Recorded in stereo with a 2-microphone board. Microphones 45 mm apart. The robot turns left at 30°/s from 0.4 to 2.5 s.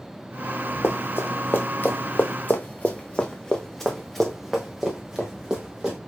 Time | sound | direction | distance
0.8 | running footsteps | 50° left (ahead or behind) | 1.1 m